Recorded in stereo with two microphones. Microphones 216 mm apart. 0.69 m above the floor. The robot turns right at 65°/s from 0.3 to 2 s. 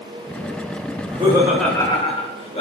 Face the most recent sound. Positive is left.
turn(degrees=30)